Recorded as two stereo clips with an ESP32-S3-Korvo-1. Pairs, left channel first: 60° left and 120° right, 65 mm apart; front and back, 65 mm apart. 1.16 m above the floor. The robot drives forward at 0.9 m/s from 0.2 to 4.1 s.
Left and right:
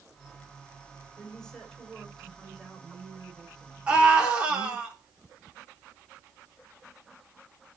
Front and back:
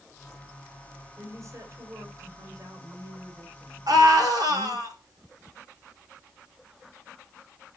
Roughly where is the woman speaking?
Behind left.